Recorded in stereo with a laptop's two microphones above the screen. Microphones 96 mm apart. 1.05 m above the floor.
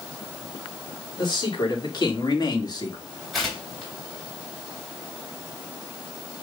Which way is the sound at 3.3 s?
5° left (ahead or behind).